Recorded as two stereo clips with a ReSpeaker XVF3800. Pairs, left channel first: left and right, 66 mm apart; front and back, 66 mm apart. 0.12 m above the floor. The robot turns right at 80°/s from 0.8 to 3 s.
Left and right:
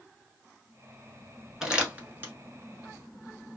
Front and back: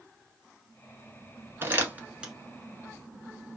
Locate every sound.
1.6 s crumpling: 170° right, 0.9 m; by 2.3 s 110° right, 0.9 m